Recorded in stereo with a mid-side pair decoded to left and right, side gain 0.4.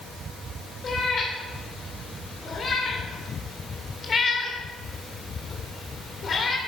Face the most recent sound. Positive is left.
turn(degrees=45)